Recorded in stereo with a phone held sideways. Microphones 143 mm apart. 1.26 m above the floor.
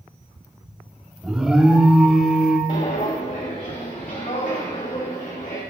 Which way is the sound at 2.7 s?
60° left (ahead or behind).